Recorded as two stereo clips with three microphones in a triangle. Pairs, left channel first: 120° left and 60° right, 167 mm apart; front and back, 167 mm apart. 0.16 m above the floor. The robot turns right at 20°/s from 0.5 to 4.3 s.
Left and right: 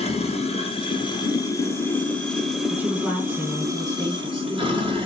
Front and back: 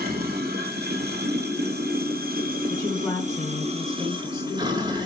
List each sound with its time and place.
0.0 s running water: 165° left, 0.8 m; by 5.1 s 115° right, 0.8 m
2.7 s a woman speaking: 5° right, 1.2 m; by 4.9 s 30° left, 1.2 m